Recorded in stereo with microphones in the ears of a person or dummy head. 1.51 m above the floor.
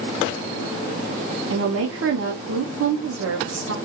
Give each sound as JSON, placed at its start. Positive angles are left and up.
{"t": 1.5, "sound": "a woman speaking", "side_deg": -85, "distance_m": 0.6}